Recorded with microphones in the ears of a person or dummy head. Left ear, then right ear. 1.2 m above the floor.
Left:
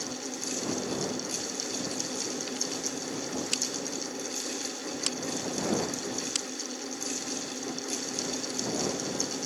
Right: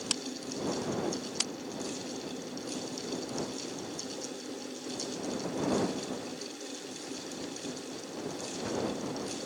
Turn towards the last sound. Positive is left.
No sound to turn to.